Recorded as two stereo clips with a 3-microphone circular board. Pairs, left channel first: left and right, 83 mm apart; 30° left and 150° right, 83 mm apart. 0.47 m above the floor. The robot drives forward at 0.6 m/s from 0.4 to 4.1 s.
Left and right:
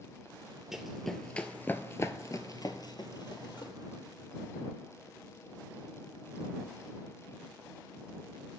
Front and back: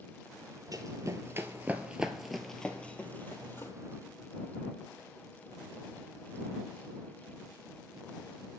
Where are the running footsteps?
175° right, 0.7 m; by 3.7 s 85° left, 0.9 m.